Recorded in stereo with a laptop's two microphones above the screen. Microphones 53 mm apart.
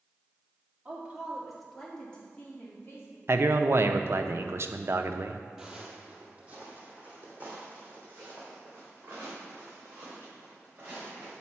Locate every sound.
0.8 s a woman speaking: 20° right (ahead or behind), 2 m; by 3.2 s 45° left (ahead or behind), 2.5 m
3.3 s a man speaking: 50° right (ahead or behind), 0.5 m
5.6 s footsteps: 10° right (ahead or behind), 1.3 m; by 11.3 s 35° right (ahead or behind), 5.5 m